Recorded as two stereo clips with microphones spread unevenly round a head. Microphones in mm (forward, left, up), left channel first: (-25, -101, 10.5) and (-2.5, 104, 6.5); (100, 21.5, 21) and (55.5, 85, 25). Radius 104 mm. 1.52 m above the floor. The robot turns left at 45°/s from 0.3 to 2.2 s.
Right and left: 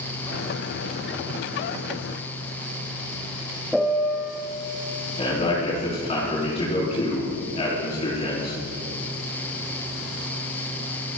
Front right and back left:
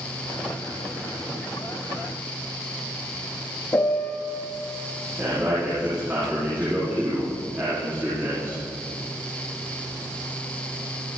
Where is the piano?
10° right, 1.2 m.